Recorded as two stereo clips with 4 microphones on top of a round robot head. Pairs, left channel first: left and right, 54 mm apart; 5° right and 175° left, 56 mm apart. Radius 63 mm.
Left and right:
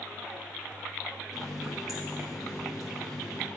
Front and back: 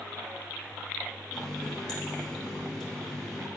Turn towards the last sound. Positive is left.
turn(degrees=70)